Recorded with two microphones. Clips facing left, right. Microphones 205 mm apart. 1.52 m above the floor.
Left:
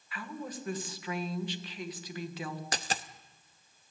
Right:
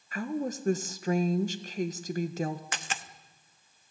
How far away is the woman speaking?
About 1.6 m.